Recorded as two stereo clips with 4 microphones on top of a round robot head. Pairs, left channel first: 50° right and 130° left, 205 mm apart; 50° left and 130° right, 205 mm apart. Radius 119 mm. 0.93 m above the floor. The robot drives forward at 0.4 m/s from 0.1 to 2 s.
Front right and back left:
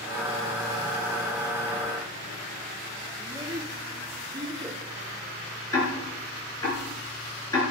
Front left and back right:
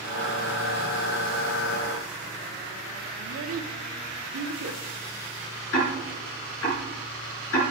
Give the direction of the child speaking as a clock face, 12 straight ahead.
5 o'clock.